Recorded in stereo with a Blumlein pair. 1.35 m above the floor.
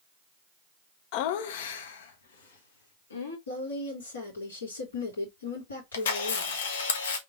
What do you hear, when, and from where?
1.1 s laughter: 45° left, 0.6 m; by 3.4 s 70° left, 2 m
3.5 s a woman speaking: 70° left, 2.5 m
5.9 s a camera shutter: 60° left, 1.1 m